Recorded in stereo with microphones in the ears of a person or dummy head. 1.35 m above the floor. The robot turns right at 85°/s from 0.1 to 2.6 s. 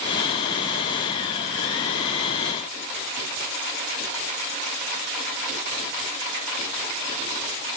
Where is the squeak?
No squeak in this recording.